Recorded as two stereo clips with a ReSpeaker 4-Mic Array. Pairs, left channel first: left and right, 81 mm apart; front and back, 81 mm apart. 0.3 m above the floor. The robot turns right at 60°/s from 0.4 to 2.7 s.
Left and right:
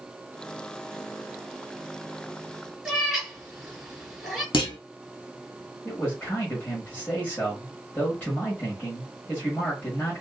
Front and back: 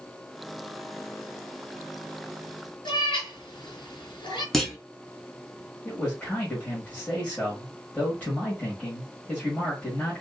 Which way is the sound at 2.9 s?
5° right.